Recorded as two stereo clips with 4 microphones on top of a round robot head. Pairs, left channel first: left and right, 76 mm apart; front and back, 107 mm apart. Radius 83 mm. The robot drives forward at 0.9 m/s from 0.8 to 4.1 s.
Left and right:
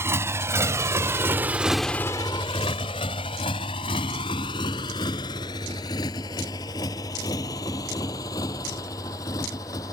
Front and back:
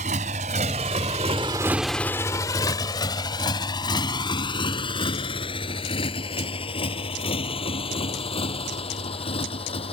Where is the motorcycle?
145° right; by 9.9 s 30° left.